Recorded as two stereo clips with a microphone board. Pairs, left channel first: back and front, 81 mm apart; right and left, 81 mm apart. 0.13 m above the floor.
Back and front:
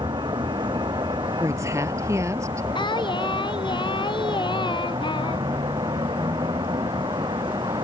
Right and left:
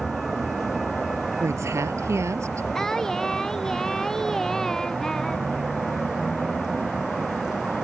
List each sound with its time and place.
0.0 s a vehicle: 5° left
1.4 s a woman speaking: 45° left
2.8 s singing: 175° right